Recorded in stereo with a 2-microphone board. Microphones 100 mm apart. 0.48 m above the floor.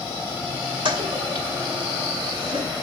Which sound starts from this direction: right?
A toilet flushing, at 0.8 s.